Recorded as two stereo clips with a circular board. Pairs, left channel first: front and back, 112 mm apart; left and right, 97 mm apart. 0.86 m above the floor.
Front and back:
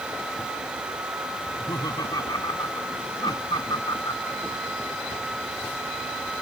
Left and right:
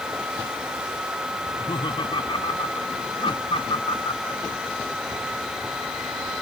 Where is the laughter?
55° left.